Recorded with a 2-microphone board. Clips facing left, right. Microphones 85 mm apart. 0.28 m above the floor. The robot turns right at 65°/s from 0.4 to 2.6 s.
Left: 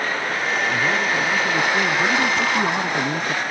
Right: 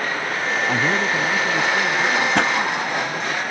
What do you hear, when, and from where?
0.7 s a man speaking: 45° right; by 3.4 s 80° left
2.4 s a pop: 70° right (ahead or behind); by 2.5 s 60° right (ahead or behind)